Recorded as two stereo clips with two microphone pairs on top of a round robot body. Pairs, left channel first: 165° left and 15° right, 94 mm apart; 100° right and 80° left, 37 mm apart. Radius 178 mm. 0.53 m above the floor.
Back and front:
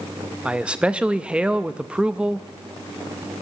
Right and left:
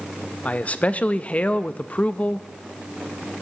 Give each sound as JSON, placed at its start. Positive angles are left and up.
{"t": 0.5, "sound": "a man speaking", "azimuth_deg": -100, "distance_m": 0.7}